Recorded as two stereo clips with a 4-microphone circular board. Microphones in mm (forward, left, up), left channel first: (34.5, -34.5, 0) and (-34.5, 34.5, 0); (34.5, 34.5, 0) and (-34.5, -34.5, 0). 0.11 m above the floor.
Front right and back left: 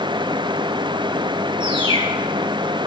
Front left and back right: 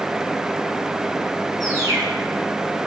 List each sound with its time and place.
1.6 s a bird: 170° left, 4 m